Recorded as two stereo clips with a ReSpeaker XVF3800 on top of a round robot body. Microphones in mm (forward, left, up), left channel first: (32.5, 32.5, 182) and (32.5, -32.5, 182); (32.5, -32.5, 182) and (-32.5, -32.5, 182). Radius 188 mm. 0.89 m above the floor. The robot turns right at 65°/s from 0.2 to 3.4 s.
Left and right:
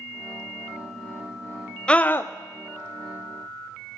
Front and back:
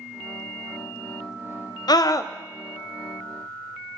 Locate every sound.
1.9 s a scream: 15° left, 0.7 m; by 2.3 s 40° left, 0.7 m